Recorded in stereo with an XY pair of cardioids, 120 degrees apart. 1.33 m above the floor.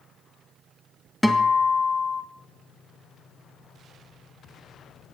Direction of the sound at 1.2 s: Straight ahead.